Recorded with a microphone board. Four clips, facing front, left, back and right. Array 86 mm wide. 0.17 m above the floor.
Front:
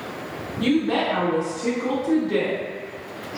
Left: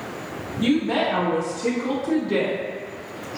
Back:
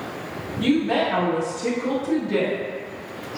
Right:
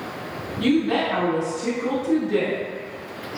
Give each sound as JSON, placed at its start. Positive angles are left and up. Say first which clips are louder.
{"t": 0.6, "sound": "a woman speaking", "louder": "right 1 dB, back 1 dB", "azimuth_deg": -85, "distance_m": 1.6}